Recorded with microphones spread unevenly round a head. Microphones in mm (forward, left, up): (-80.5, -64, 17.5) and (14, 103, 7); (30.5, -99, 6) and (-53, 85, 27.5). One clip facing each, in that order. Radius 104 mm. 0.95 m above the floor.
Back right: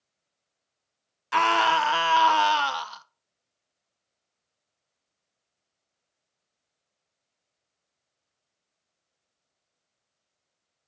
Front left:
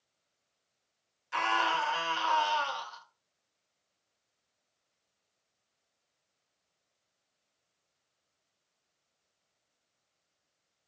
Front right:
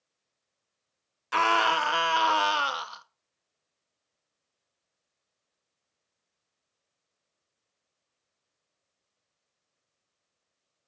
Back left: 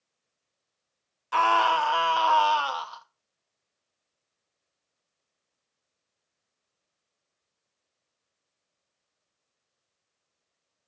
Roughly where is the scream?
Behind right.